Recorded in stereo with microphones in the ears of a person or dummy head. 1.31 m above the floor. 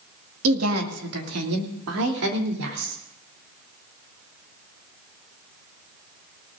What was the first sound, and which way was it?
A woman speaking, 85° right.